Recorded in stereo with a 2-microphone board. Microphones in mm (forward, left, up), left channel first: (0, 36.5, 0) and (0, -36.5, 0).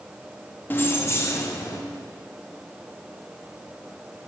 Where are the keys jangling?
25° left (ahead or behind), 0.7 m; by 1.8 s 45° left (ahead or behind), 1.2 m.